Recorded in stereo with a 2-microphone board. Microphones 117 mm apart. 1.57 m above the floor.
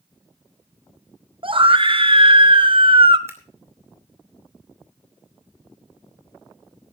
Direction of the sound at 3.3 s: 20° right (ahead or behind).